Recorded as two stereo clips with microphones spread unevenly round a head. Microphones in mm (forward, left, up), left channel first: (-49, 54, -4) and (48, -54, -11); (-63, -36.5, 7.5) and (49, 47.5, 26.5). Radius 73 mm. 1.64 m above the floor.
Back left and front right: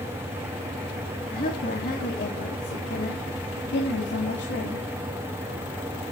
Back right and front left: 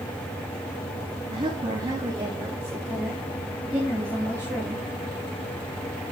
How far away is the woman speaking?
About 3 m.